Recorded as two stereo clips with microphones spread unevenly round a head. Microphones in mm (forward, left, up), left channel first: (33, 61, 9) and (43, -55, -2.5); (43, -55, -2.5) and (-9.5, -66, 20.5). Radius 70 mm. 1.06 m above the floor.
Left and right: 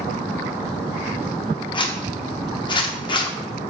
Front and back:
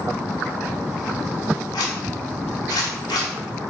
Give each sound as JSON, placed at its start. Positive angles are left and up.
{"t": 1.7, "sound": "a zipper", "azimuth_deg": 55, "distance_m": 1.0}